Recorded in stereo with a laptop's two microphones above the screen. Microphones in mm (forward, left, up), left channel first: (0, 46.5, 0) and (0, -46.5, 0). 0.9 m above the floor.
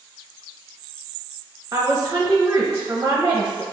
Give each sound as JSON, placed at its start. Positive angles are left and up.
{"t": 1.7, "sound": "a woman speaking", "side_deg": -30, "distance_m": 0.8}